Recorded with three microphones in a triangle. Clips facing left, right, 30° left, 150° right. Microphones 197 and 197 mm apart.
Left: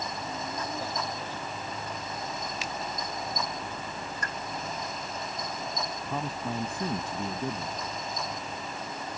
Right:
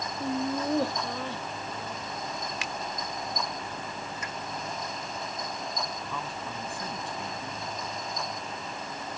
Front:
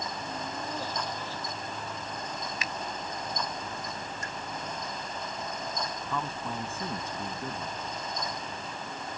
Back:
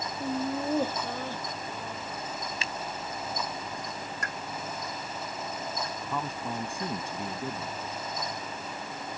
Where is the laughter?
110° right.